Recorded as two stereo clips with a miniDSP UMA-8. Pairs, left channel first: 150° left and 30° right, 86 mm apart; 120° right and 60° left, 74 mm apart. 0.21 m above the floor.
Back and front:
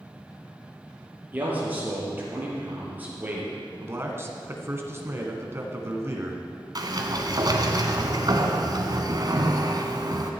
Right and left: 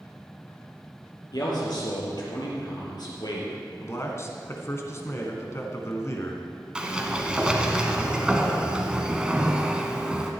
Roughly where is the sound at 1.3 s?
Right.